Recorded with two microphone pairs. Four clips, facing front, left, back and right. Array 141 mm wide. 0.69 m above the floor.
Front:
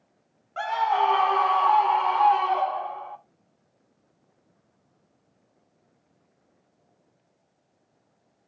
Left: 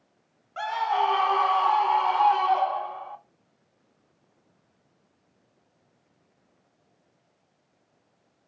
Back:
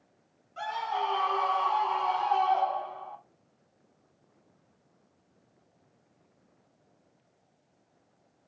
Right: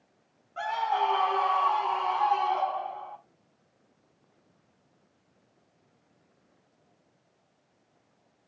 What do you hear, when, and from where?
0.6 s a scream: 25° left, 1.8 m; by 3.2 s 60° left, 3.5 m